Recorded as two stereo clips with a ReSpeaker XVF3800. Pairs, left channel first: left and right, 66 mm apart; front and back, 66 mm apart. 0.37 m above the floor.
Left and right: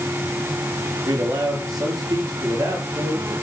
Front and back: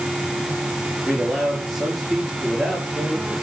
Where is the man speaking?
95° right, 8.5 m.